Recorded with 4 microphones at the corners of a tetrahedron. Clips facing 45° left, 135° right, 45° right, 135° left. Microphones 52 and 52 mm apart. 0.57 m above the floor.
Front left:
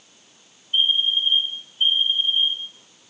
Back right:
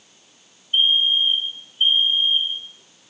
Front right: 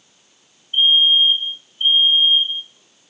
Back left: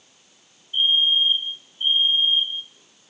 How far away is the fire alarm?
About 5.5 m.